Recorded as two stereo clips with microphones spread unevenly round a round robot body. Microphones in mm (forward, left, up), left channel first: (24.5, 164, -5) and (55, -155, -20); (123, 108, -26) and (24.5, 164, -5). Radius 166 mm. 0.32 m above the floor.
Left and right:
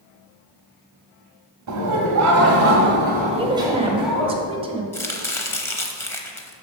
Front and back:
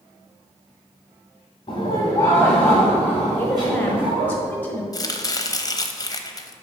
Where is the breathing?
I don't hear breathing.